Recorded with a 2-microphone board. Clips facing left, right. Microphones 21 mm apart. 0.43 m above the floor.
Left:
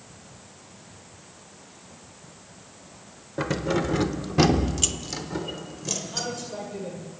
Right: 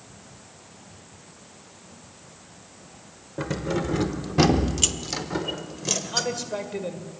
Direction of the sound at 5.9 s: 40° right (ahead or behind).